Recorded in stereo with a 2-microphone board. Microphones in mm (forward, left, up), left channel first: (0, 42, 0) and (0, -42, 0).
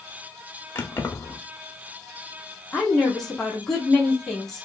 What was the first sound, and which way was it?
Keys jangling, 30° left (ahead or behind).